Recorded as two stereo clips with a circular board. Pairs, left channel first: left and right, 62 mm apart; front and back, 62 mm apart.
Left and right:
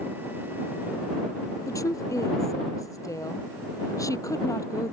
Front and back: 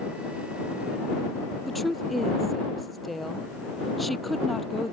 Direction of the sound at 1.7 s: 90° left.